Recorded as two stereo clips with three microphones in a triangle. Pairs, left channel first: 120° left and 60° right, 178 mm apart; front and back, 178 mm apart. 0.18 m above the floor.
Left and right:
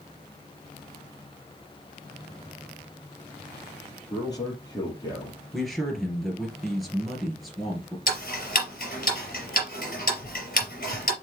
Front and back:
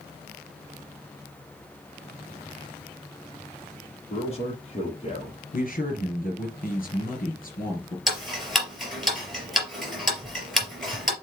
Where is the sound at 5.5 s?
30° left, 2.5 m.